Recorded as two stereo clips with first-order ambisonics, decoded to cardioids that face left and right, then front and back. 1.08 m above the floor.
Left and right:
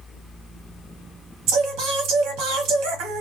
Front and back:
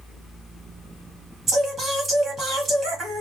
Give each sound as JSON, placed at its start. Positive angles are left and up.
{"t": 1.5, "sound": "singing", "azimuth_deg": -110, "distance_m": 1.4}